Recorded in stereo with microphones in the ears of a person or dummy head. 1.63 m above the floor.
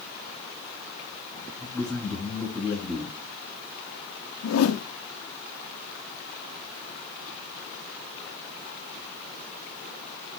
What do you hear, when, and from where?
1.6 s a man speaking: 10° left (ahead or behind), 6.5 m
4.4 s a whoosh: 85° left, 0.8 m